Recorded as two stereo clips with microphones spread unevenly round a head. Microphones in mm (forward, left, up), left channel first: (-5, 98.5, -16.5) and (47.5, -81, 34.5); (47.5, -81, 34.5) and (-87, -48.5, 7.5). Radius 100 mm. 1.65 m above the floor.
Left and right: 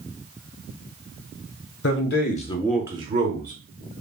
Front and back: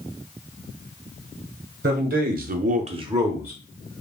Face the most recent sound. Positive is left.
turn(degrees=-115)